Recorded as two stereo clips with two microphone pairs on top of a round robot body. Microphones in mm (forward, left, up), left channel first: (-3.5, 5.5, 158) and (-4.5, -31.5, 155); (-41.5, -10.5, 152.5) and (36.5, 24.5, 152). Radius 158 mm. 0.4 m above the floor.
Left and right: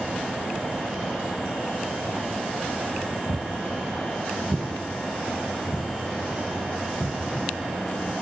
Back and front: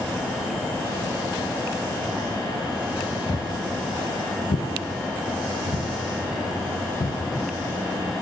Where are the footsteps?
100° right, 0.5 m; by 7.2 s 175° right, 2 m.